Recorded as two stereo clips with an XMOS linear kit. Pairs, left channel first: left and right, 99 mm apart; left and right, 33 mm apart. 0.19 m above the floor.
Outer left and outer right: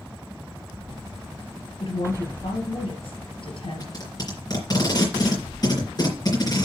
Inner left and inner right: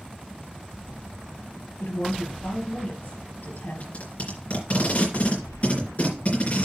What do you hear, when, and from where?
1.8 s a woman speaking: 70° left (ahead or behind), 3 m
3.8 s tape being pulled: 40° left (ahead or behind), 3.5 m